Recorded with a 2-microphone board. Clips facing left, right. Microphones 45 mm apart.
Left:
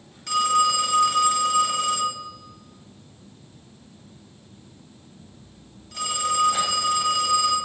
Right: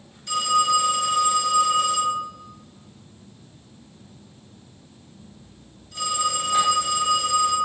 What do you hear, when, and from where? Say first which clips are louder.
0.3 s a phone ringing: even; 70° left (ahead or behind), 1.4 m